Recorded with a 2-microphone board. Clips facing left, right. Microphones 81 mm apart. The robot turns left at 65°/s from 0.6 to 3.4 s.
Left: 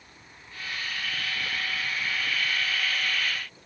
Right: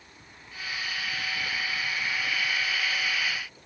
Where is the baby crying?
No baby crying in this recording.